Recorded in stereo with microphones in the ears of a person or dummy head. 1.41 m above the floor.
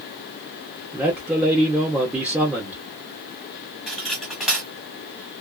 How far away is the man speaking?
About 1.1 m.